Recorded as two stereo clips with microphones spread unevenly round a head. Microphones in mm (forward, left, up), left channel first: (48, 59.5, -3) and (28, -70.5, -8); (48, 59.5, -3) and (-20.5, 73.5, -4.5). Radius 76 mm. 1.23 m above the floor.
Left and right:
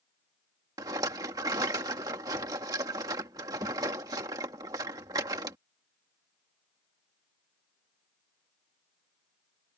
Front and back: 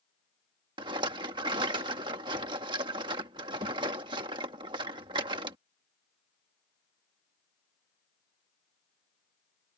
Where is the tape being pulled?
I don't hear tape being pulled.